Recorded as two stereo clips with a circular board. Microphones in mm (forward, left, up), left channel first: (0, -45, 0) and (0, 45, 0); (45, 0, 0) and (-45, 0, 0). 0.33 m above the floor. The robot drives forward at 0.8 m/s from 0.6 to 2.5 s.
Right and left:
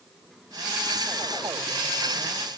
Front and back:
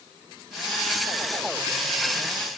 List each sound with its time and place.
Only background noise.